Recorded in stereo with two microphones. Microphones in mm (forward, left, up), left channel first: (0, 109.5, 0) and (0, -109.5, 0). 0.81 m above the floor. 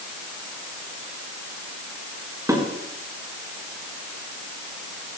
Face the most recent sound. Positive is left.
turn(degrees=-15)  # may be behind; listen again after turning